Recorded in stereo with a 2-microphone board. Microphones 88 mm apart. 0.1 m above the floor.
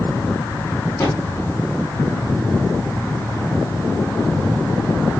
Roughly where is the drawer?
Left.